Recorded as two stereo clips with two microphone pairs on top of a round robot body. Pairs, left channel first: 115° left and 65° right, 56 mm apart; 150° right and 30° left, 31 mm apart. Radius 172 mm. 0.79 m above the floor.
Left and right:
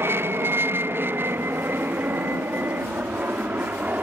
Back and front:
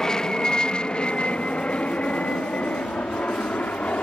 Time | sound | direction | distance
0.0 | an aircraft | 85° right | ?